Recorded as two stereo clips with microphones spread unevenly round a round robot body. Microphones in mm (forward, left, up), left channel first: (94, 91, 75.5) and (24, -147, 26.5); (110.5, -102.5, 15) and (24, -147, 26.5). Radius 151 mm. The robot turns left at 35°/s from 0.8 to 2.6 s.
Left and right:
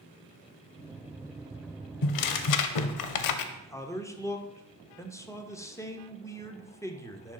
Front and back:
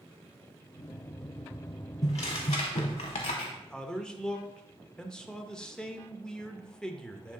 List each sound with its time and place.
2.0 s tearing paper: 80° left, 0.5 m; by 3.4 s 60° left, 0.5 m
3.5 s a man speaking: 20° right, 0.8 m